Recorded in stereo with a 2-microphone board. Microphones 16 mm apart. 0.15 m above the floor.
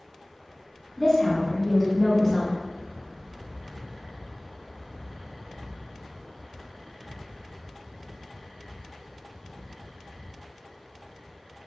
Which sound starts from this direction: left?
A woman speaking, at 1.0 s.